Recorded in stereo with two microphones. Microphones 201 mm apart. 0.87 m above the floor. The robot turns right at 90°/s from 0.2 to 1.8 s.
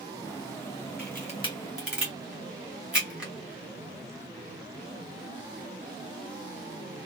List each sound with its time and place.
1.0 s a camera shutter: 55° left (ahead or behind), 2 m; by 3.3 s 5° right (ahead or behind), 2 m